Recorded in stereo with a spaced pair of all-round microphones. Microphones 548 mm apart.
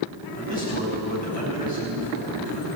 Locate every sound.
0.3 s a man speaking: 15° left (ahead or behind), 6 m